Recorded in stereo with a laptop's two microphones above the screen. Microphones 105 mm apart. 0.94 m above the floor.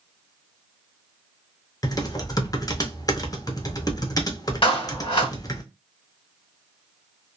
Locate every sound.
1.8 s typing on a keyboard: 35° left (ahead or behind), 0.6 m
4.6 s a clap: 50° left (ahead or behind), 1.4 m